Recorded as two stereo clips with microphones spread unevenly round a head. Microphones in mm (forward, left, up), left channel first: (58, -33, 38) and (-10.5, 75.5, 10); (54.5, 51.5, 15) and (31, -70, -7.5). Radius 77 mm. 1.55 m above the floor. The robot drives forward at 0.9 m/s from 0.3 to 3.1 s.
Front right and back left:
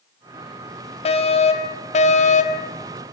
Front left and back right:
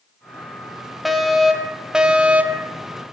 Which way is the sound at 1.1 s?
15° right.